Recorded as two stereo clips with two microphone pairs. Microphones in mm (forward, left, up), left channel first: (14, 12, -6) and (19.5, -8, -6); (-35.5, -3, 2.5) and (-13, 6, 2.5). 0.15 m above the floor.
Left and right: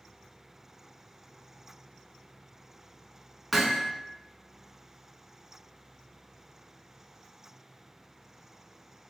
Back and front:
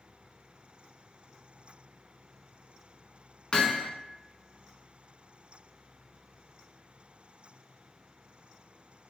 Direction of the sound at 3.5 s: 165° right.